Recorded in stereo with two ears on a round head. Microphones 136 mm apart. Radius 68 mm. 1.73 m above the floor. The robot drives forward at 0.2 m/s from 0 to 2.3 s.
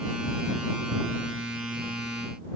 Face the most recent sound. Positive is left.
No sound to turn to.